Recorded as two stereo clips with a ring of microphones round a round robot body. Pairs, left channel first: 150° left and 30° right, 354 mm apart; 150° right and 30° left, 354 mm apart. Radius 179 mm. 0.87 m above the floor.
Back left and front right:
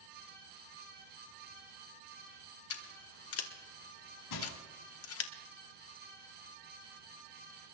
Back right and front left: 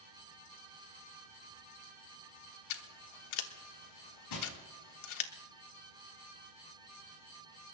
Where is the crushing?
175° right, 6.5 m.